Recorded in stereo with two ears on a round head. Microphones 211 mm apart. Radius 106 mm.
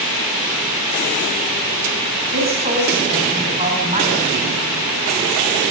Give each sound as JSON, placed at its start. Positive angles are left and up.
{"t": 2.3, "sound": "a woman speaking", "side_deg": -30, "distance_m": 6.5}